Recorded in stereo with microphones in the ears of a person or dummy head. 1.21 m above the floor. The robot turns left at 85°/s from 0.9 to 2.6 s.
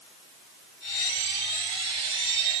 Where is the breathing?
No breathing in this recording.